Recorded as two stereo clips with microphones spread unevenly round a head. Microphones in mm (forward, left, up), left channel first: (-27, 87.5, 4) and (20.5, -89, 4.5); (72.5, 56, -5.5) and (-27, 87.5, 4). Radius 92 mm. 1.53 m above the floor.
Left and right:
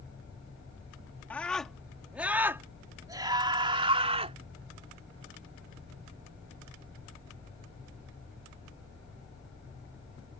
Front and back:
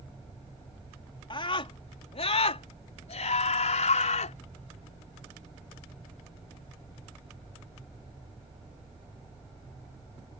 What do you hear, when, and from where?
1.3 s a scream: 20° left; by 4.4 s 15° right